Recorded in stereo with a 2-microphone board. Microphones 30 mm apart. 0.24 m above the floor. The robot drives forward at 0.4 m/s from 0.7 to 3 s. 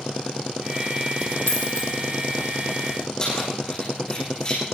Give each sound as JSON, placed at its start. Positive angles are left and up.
{"t": 1.5, "sound": "a dropped coin", "side_deg": 70, "distance_m": 4.5}
{"t": 3.2, "sound": "keys jangling", "side_deg": 30, "distance_m": 9.5}